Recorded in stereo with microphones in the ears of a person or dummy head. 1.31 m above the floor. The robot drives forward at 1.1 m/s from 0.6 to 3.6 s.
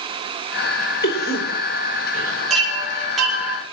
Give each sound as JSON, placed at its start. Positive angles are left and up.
{"t": 1.0, "sound": "a cough", "side_deg": 55, "distance_m": 4.0}
{"t": 2.5, "sound": "a chime", "side_deg": 0, "distance_m": 7.5}